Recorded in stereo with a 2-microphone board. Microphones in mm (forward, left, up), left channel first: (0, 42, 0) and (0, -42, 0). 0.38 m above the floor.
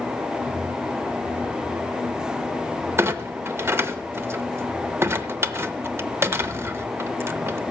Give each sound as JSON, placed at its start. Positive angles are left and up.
{"t": 3.0, "sound": "a clunk", "side_deg": -30, "distance_m": 0.6}